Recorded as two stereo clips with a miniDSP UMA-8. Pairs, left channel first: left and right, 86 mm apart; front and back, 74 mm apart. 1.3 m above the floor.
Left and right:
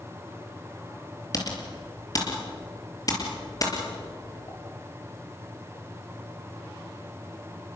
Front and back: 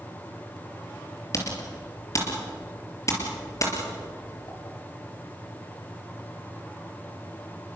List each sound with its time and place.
1.3 s typing on a keyboard: 45° left, 4 m